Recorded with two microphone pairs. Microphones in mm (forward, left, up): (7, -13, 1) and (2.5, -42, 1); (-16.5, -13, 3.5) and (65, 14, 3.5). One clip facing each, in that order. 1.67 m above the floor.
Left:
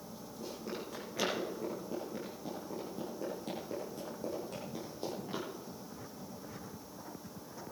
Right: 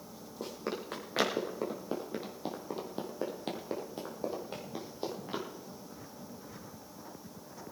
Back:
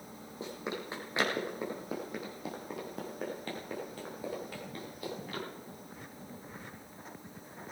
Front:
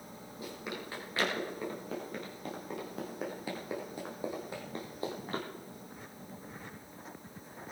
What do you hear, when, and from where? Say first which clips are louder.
0.4 s running footsteps: right 4 dB, back 3 dB; 100° right, 4 m; by 5.4 s 30° right, 3 m